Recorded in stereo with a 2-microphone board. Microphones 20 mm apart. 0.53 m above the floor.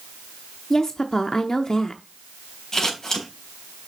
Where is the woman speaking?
35° left (ahead or behind), 0.7 m.